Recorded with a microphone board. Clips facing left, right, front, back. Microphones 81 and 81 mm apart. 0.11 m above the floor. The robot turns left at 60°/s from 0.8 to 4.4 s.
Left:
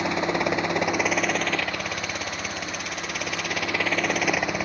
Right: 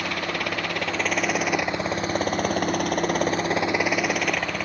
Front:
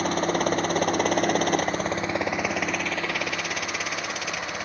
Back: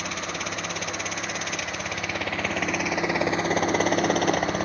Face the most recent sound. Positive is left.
turn(degrees=165)